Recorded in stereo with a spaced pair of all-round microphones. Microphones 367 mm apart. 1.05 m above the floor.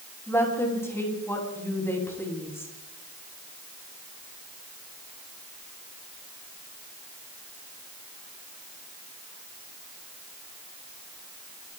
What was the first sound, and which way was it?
A woman speaking, 5° left (ahead or behind).